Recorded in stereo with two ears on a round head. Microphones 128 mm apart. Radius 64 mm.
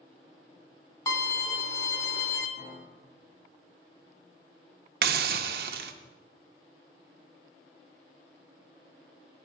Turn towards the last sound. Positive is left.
turn(degrees=-70)  # may be behind; listen again after turning